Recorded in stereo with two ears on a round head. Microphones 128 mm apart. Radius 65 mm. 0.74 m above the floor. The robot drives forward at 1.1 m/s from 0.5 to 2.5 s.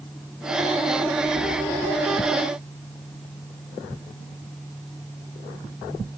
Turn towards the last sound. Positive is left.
No sound to turn to.